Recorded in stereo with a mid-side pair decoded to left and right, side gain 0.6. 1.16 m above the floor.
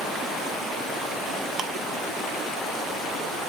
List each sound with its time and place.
1.6 s ticking: 45° right, 0.8 m